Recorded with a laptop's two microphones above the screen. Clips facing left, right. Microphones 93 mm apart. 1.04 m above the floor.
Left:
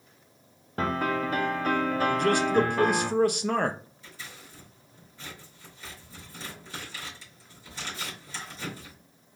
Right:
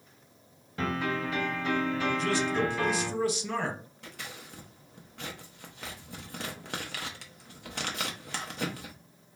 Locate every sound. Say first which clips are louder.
0.8 s a piano: left 4 dB; 50° left (ahead or behind), 0.6 m
2.1 s a man speaking: left 6 dB; 60° left (ahead or behind), 0.6 m
4.0 s scissors: right 2 dB; 75° right (ahead or behind), 0.7 m